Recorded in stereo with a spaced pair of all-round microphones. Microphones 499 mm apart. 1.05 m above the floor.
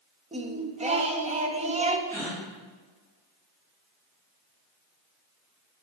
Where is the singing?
15° right (ahead or behind), 0.6 m.